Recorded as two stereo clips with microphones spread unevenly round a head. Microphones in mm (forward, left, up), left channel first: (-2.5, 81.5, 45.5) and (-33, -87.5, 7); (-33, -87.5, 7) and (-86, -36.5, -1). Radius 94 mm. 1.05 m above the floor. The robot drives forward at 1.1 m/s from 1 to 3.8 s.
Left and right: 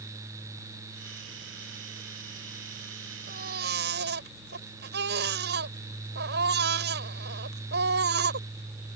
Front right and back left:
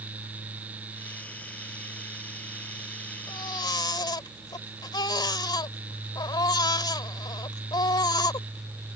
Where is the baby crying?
55° right; by 9.0 s 65° right.